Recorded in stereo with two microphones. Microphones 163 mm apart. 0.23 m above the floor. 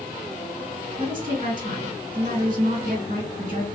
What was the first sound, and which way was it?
A woman speaking, 60° right (ahead or behind).